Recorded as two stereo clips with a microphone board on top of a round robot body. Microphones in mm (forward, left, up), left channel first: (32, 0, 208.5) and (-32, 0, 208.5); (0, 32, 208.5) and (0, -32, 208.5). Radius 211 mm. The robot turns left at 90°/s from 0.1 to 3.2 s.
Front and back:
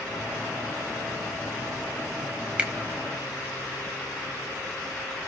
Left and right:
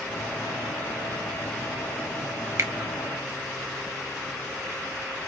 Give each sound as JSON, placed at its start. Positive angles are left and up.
{"t": 2.6, "sound": "a finger snap", "azimuth_deg": -115, "distance_m": 1.2}